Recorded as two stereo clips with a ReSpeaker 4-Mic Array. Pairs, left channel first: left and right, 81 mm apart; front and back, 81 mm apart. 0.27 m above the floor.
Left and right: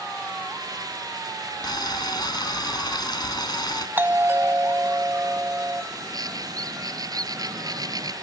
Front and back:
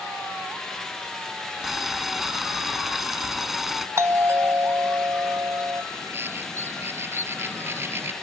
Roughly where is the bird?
Behind right.